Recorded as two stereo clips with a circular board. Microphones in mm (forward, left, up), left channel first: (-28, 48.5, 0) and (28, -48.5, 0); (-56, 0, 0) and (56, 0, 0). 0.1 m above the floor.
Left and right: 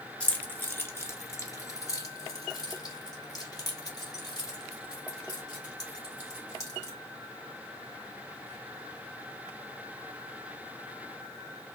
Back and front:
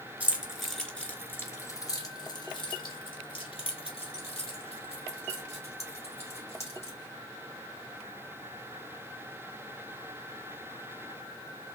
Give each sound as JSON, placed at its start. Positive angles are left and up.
{"t": 0.2, "sound": "keys jangling", "azimuth_deg": 60, "distance_m": 1.2}